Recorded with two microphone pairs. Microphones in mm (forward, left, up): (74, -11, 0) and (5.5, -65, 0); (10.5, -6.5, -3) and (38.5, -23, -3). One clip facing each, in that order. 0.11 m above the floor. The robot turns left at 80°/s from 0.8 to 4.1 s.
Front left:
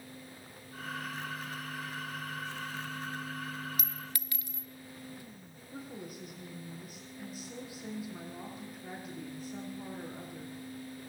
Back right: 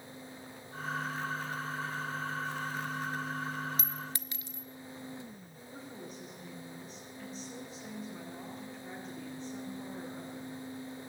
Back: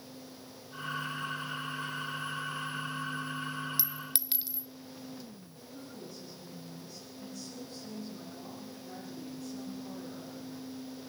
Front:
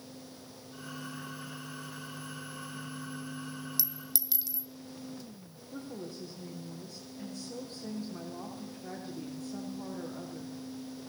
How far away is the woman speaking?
About 6 m.